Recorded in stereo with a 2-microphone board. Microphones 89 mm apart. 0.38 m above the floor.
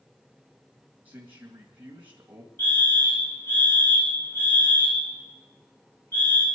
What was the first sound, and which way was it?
A man speaking, 20° right (ahead or behind).